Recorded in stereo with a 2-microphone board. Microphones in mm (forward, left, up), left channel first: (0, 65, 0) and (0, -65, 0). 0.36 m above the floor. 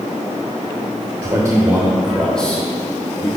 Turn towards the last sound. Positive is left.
turn(degrees=25)  # may be behind; listen again after turning